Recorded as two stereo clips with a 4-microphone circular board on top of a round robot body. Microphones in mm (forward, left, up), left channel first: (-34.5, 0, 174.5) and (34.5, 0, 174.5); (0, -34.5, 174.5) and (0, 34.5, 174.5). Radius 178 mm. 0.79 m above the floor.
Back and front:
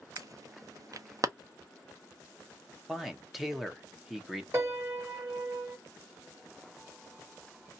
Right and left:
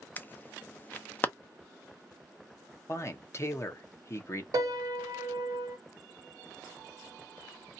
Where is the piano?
55° left, 1.0 m.